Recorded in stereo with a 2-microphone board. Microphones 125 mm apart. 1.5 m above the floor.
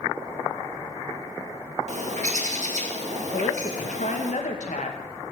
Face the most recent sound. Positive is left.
turn(degrees=75)  # may be behind; listen again after turning